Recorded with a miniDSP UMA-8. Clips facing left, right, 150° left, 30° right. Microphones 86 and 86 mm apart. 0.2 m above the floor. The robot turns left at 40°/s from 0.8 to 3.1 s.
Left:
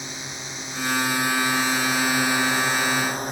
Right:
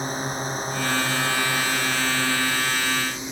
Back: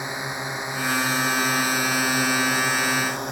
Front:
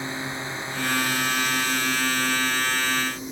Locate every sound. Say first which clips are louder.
0.0 s a drone: right 9 dB, back 1 dB; 140° right; by 3.3 s 130° left